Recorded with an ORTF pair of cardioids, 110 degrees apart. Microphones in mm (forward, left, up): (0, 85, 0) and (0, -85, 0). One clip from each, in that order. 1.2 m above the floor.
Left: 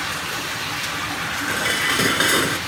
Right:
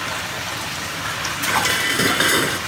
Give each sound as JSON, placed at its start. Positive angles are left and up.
{"t": 1.5, "sound": "dishes clattering", "azimuth_deg": -5}